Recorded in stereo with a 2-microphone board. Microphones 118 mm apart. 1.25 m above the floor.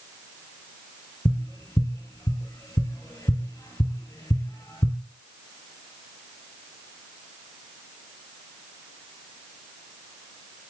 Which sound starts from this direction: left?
Tapping, at 1.2 s.